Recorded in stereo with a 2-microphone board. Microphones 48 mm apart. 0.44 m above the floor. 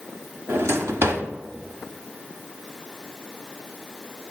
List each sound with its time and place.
0.5 s a drawer: 60° right (ahead or behind), 0.8 m